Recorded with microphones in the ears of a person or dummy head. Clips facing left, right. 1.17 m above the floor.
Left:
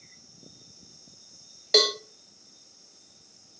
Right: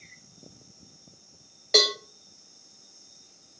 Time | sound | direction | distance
1.7 | a cowbell | centre (ahead or behind) | 0.7 m